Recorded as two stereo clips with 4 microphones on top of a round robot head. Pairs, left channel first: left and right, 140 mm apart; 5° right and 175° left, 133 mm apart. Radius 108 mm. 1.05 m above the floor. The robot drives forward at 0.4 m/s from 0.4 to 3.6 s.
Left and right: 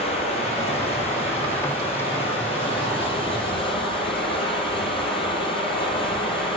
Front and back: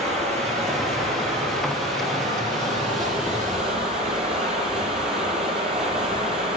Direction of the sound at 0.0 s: 135° left.